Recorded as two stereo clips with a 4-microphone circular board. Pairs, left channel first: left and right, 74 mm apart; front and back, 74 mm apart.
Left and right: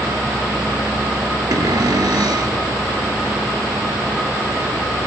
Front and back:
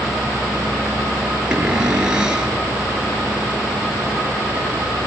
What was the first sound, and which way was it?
A cupboard door, 105° right.